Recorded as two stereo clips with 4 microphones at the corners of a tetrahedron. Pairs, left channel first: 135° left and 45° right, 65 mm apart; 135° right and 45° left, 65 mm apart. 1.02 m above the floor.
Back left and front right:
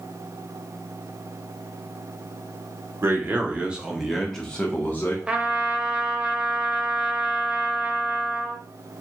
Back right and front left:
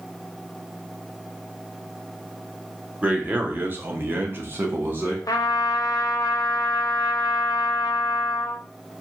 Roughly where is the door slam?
I don't hear a door slam.